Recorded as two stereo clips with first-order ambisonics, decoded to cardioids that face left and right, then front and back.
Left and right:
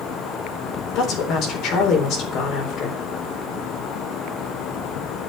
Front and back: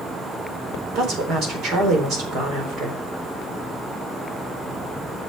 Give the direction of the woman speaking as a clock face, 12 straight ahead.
8 o'clock.